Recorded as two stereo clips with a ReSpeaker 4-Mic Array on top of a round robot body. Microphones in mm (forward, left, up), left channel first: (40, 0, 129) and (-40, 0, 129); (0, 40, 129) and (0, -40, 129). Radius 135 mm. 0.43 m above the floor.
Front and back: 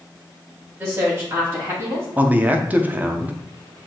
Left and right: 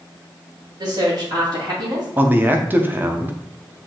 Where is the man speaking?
130° right, 0.9 m.